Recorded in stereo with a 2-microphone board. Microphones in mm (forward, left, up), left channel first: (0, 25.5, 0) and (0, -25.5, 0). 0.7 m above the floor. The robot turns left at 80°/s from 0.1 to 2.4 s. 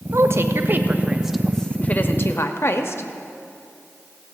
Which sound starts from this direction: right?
A woman speaking, at 0.1 s.